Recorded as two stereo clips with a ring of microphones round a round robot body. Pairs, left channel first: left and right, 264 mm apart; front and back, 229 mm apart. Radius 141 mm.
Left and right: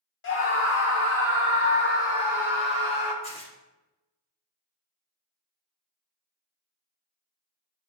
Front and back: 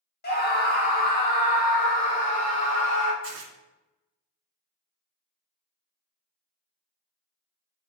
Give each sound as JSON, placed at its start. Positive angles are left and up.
{"t": 0.2, "sound": "a scream", "azimuth_deg": 45, "distance_m": 1.9}
{"t": 3.2, "sound": "tearing paper", "azimuth_deg": 155, "distance_m": 1.6}